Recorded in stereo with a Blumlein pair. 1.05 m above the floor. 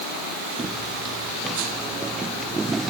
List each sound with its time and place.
0.6 s footsteps: 10° right